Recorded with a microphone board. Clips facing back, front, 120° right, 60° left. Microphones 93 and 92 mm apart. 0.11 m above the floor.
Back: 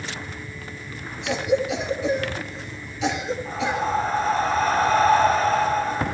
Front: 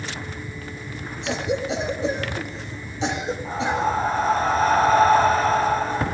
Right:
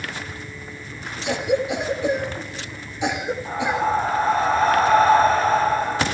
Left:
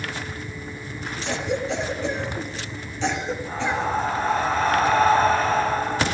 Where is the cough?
45° right, 2.5 m.